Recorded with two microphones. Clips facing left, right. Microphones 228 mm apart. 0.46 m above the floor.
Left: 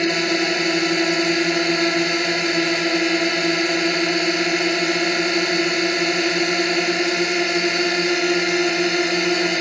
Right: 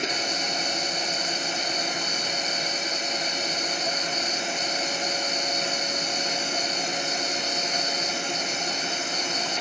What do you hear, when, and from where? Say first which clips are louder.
0.0 s a drone: left 12 dB; 80° left